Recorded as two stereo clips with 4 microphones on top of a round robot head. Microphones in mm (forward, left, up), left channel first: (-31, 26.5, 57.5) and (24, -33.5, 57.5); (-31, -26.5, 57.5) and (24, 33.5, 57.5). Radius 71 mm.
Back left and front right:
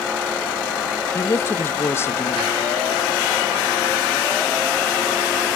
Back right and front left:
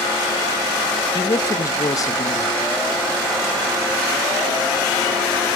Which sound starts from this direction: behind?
A man speaking, at 1.1 s.